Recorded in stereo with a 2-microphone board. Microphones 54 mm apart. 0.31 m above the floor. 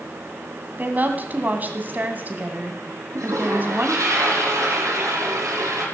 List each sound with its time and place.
0.8 s a woman speaking: 35° right (ahead or behind), 2 m
3.1 s a toilet flushing: 80° right, 5.5 m